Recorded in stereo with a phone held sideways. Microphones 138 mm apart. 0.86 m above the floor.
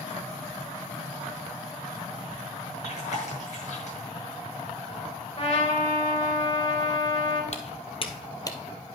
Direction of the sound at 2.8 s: 65° left (ahead or behind).